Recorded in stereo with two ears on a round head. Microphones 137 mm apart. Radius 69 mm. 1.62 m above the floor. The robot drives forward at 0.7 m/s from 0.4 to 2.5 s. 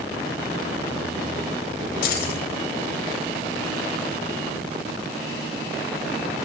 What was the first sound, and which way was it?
Keys jangling, 75° left (ahead or behind).